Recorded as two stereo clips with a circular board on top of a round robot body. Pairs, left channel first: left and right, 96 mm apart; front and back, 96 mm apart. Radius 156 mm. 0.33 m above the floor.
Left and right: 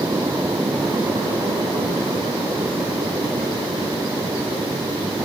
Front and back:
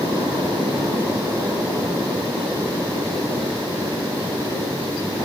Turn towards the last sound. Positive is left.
No sound to turn to.